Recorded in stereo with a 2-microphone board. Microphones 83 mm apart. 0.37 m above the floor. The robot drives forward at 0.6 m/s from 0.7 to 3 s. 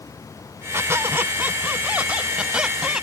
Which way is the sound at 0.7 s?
30° right (ahead or behind).